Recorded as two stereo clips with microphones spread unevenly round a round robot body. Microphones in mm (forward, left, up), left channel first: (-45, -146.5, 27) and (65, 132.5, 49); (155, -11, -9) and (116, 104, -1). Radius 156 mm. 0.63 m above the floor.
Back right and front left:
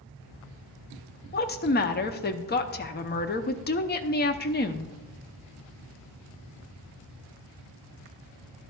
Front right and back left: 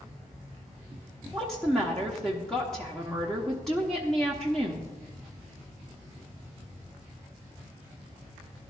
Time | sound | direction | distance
1.3 | a woman speaking | 155° right | 0.7 m